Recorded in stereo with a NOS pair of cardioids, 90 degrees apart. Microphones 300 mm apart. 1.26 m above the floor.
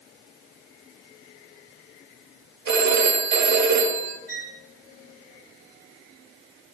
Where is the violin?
50° right, 1.8 m.